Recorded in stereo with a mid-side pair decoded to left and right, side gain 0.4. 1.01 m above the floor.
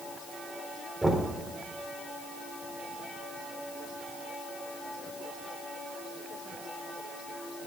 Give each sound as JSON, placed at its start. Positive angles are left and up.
{"t": 1.0, "sound": "knocking", "azimuth_deg": -20, "distance_m": 2.5}